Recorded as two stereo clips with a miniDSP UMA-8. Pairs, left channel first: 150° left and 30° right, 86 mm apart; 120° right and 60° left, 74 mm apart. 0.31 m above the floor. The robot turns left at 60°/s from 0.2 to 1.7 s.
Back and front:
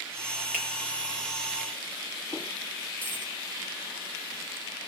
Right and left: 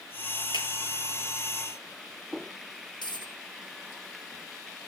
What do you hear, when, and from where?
0.5 s a finger snap: 105° right, 7.5 m; by 0.7 s 115° right, 7.5 m
3.0 s a dropped coin: 140° right, 3.5 m